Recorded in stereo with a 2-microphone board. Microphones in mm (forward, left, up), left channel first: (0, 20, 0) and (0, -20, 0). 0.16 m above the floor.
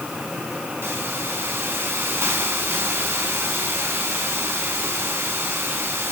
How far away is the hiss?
About 5 m.